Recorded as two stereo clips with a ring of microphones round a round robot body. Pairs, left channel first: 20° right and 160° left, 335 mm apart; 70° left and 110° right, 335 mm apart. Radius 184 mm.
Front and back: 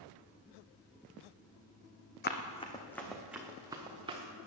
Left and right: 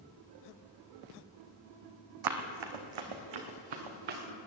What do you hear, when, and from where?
2.2 s running footsteps: 85° right, 1.6 m; by 4.2 s 130° right, 3 m